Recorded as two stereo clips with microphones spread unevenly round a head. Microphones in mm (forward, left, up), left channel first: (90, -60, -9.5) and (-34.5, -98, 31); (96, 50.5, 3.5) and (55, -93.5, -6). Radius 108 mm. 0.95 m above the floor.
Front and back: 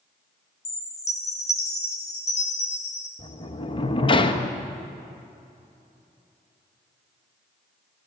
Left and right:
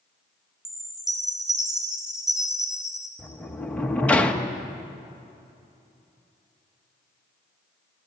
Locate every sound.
0.7 s a chime: 15° right, 3.5 m
3.2 s a sliding door: 10° right, 1.3 m